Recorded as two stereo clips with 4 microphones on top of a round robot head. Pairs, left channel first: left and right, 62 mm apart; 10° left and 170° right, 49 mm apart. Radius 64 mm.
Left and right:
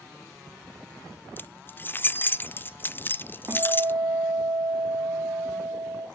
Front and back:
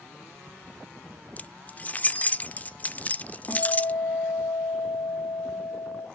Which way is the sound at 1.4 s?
50° left.